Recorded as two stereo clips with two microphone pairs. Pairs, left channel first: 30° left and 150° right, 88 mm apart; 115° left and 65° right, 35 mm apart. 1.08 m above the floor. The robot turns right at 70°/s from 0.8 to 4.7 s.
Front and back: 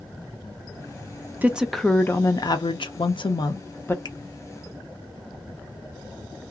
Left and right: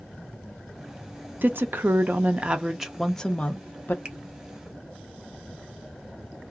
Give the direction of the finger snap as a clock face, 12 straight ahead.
12 o'clock.